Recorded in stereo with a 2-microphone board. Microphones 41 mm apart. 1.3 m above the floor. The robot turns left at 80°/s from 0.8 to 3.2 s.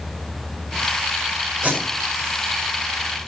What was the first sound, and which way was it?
Tape being pulled, 30° right (ahead or behind).